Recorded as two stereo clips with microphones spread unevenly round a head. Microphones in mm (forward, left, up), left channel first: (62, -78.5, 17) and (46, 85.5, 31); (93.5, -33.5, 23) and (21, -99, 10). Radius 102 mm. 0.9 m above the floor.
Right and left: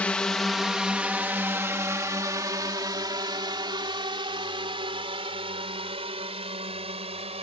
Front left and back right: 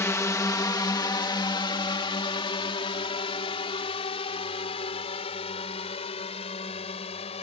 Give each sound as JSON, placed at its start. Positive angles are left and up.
{"t": 0.0, "sound": "a drone", "azimuth_deg": -10}